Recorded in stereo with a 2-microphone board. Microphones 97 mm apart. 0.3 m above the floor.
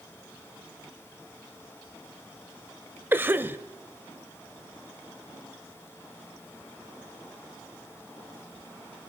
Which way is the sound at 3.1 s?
20° right (ahead or behind).